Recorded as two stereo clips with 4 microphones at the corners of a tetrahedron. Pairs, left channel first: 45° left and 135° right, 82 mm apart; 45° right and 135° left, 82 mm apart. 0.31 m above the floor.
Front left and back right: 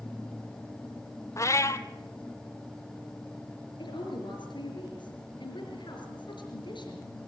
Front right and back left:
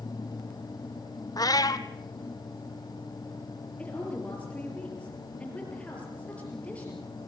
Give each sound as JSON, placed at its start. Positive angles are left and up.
{"t": 1.4, "sound": "a cat meowing", "azimuth_deg": -5, "distance_m": 1.0}
{"t": 3.8, "sound": "a woman speaking", "azimuth_deg": 30, "distance_m": 5.0}